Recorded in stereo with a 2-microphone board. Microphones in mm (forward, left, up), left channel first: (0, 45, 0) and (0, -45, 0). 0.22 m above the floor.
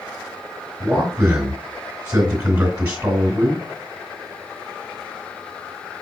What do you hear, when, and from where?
0.8 s a man speaking: 20° right (ahead or behind), 1.9 m